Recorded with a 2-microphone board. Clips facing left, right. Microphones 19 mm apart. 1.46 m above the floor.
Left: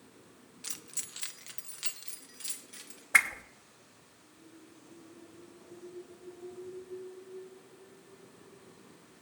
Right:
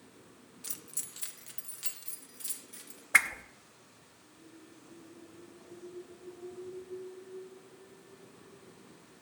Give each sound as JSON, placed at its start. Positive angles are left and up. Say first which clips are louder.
{"t": 0.6, "sound": "keys jangling", "louder": "left 2 dB", "side_deg": 20, "distance_m": 0.5}
{"t": 3.1, "sound": "a whoosh", "louder": "even", "side_deg": -5, "distance_m": 0.5}